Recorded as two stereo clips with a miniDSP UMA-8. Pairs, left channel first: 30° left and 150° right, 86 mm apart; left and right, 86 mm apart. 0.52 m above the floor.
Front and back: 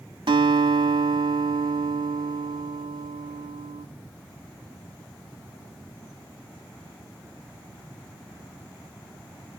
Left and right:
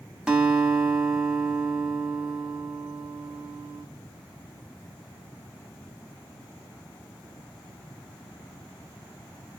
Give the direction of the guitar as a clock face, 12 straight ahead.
6 o'clock.